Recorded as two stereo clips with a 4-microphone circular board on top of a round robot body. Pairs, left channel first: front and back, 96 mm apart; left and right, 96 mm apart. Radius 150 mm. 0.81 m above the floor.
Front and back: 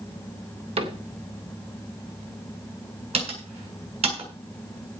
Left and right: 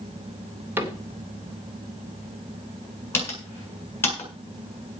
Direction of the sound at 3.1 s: 160° left.